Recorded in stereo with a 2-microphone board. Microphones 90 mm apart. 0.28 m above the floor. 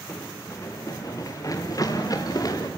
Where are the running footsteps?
30° left (ahead or behind), 1.9 m; by 2.7 s 45° left (ahead or behind), 3.5 m.